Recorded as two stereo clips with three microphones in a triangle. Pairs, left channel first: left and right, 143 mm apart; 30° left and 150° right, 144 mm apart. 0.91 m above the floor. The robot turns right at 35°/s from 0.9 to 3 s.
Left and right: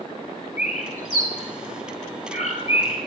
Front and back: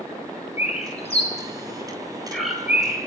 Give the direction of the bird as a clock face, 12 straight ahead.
10 o'clock.